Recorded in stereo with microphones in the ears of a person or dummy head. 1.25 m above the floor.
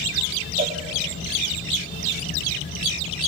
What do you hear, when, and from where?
0.6 s a cowbell: 30° right (ahead or behind), 0.6 m